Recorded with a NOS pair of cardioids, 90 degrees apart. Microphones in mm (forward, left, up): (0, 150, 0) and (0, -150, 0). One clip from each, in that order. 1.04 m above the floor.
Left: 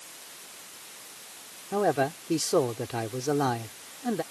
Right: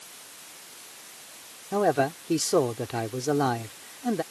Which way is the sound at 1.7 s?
15° right.